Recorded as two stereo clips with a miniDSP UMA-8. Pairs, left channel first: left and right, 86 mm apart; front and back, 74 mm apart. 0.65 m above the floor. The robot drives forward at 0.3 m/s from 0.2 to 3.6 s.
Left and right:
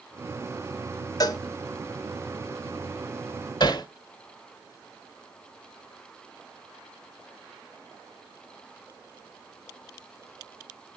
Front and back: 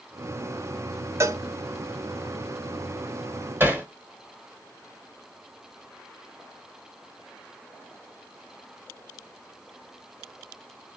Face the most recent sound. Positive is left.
turn(degrees=125)